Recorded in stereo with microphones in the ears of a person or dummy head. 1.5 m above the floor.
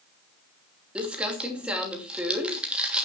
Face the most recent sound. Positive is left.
turn(degrees=-10)  # may be behind; listen again after turning